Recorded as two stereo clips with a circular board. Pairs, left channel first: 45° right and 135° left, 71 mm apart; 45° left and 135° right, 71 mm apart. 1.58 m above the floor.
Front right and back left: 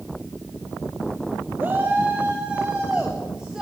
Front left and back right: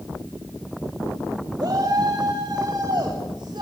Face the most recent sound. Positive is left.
turn(degrees=-140)